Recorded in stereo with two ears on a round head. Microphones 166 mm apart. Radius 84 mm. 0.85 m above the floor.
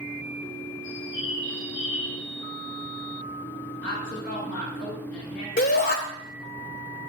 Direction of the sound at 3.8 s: 50° left (ahead or behind).